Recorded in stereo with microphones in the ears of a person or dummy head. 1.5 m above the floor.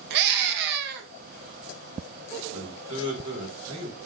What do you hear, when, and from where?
0.1 s a scream: 60° right (ahead or behind), 0.6 m
2.5 s a man speaking: 45° right (ahead or behind), 1.9 m